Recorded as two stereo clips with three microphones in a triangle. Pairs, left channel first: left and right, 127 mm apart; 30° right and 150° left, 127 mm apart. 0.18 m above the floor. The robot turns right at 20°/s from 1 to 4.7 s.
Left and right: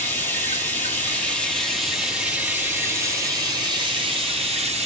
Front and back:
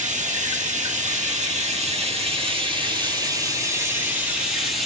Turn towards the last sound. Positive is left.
turn(degrees=-120)